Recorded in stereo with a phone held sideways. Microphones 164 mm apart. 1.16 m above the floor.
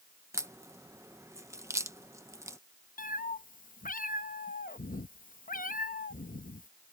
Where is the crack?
20° right (ahead or behind).